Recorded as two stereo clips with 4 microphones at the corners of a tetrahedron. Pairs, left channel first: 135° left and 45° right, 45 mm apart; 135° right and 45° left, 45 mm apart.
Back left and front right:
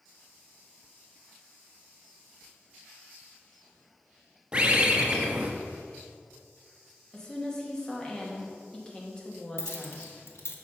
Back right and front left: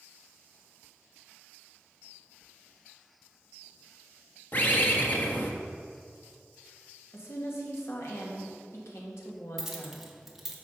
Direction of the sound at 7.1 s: 150° right.